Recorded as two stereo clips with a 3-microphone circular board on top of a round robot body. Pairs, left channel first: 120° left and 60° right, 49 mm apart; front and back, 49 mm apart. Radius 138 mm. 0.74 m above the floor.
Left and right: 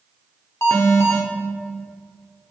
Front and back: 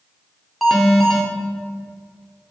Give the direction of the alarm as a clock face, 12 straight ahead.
9 o'clock.